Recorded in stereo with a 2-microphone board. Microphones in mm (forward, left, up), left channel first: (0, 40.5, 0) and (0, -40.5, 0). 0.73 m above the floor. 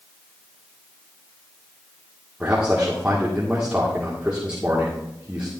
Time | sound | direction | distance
2.4 | a man speaking | 15° right (ahead or behind) | 2 m